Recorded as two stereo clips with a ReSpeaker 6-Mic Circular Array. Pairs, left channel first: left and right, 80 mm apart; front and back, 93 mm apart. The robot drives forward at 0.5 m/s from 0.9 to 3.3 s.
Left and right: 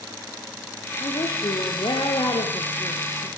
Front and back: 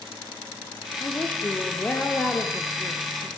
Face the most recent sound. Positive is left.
turn(degrees=85)